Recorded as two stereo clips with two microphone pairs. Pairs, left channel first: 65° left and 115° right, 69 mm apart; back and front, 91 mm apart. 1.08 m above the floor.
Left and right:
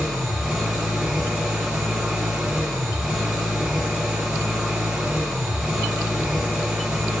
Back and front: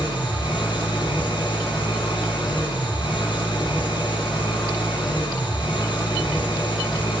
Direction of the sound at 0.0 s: 165° left.